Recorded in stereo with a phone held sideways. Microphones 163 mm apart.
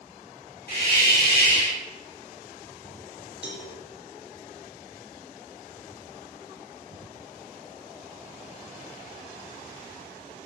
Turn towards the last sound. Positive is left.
turn(degrees=80)